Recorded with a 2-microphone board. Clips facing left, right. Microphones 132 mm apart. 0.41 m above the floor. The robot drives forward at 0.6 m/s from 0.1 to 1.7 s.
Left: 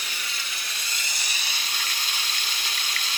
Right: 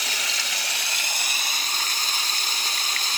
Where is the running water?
80° right, 0.7 m; by 3.2 s 40° right (ahead or behind), 1.1 m.